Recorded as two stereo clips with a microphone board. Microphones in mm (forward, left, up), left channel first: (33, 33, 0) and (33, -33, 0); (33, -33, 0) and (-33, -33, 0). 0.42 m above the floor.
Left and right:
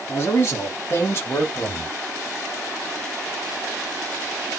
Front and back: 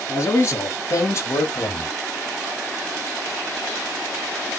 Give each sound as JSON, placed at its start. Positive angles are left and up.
{"t": 0.1, "sound": "a man speaking", "azimuth_deg": 45, "distance_m": 3.0}